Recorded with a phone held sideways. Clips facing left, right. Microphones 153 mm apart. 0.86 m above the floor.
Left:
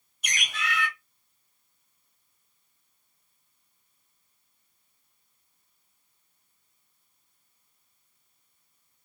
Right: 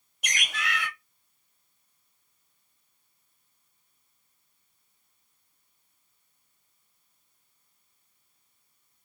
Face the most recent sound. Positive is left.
turn(degrees=-70)  # may be behind; listen again after turning